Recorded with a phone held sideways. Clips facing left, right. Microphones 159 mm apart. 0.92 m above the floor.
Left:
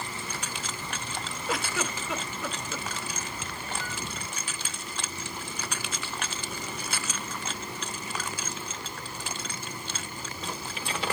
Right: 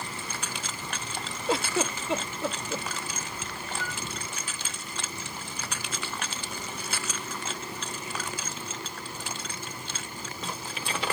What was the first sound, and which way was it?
A giggle, 30° right (ahead or behind).